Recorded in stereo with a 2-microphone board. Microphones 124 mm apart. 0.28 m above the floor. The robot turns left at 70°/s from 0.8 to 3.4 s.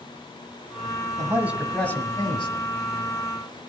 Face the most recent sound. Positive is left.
turn(degrees=60)